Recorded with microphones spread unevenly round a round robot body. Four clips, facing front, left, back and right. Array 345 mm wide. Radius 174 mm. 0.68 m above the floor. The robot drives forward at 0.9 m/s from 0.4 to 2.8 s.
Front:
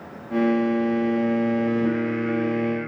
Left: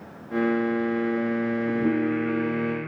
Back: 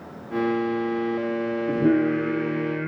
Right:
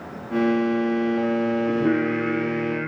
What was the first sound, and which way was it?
Singing, 170° right.